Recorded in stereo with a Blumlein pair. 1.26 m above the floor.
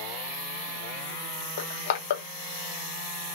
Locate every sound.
1.6 s crushing: 60° left, 0.8 m